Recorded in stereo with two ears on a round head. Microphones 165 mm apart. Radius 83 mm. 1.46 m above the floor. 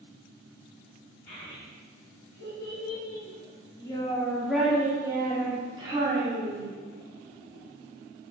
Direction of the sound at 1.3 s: 65° left (ahead or behind).